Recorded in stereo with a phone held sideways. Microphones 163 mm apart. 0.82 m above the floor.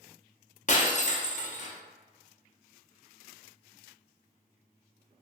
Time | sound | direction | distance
0.7 | breaking glass | 50° left (ahead or behind) | 0.5 m